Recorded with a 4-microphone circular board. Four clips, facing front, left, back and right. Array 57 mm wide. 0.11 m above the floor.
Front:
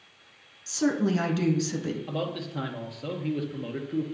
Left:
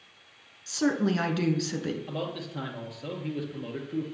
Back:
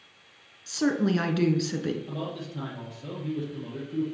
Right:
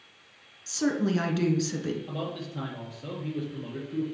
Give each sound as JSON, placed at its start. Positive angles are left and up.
{"t": 0.7, "sound": "a woman speaking", "azimuth_deg": 145, "distance_m": 1.2}
{"t": 2.1, "sound": "a man speaking", "azimuth_deg": 20, "distance_m": 1.9}